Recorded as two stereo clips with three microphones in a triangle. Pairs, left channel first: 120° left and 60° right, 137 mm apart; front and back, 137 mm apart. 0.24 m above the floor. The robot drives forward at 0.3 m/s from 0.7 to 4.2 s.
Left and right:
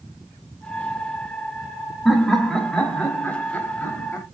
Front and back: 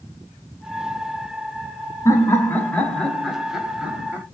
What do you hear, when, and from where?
2.0 s laughter: 30° left, 1.0 m; by 4.2 s 140° left, 1.0 m